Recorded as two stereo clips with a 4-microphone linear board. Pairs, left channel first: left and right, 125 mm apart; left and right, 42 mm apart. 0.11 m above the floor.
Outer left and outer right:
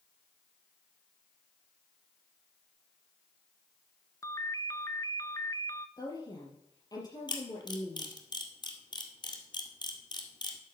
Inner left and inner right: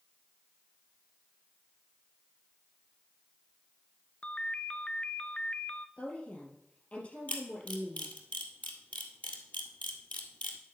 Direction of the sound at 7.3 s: 40° left (ahead or behind).